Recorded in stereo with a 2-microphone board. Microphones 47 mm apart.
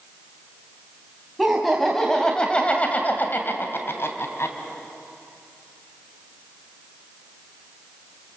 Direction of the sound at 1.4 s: 5° right (ahead or behind).